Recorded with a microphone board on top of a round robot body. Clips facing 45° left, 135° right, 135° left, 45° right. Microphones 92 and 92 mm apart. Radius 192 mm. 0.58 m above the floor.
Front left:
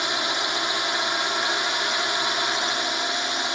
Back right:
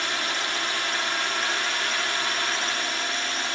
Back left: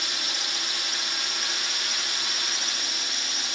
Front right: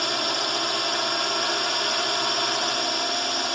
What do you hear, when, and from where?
0.0 s a drone: 25° right